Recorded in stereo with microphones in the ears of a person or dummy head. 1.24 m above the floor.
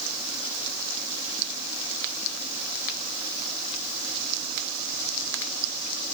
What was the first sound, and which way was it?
Only background noise.